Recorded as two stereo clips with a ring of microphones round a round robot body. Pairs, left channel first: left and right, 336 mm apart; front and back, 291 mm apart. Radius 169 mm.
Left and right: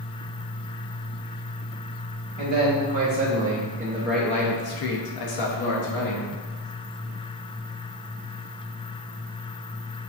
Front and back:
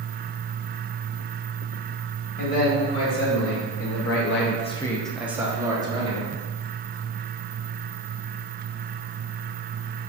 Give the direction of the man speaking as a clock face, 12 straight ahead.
2 o'clock.